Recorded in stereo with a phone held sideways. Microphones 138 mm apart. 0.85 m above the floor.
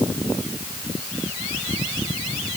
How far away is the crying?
No crying in this recording.